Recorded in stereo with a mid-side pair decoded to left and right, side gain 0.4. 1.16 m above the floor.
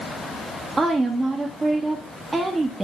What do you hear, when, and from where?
0.8 s a woman speaking: 25° right, 1.5 m